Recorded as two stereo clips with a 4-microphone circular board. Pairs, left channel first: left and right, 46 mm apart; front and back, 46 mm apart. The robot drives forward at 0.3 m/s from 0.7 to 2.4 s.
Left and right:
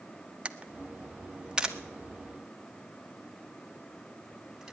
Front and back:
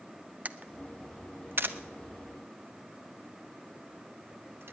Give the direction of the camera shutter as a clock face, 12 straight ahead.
5 o'clock.